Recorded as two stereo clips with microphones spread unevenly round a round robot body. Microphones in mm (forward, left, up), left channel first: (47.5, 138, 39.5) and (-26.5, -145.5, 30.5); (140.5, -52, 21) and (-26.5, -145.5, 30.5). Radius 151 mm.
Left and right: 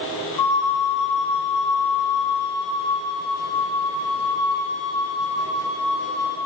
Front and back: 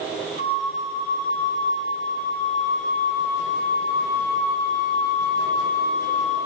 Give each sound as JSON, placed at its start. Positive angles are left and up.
{"t": 0.4, "sound": "a flute", "azimuth_deg": 80, "distance_m": 2.5}